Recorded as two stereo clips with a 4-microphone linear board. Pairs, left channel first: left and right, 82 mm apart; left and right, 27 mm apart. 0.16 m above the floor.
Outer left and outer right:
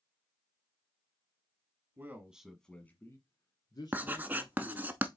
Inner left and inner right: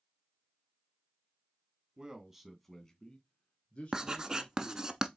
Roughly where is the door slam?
No door slam in this recording.